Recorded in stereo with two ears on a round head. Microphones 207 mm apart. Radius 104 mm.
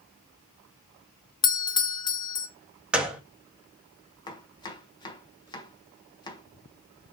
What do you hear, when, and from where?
1.4 s a doorbell: 20° left (ahead or behind), 0.7 m
2.9 s a gunshot: 5° right (ahead or behind), 1.6 m
4.3 s chopping: 20° left (ahead or behind), 1.7 m